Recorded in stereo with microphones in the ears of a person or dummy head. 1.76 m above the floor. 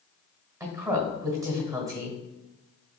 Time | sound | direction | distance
0.6 | a woman speaking | 20° right (ahead or behind) | 1.1 m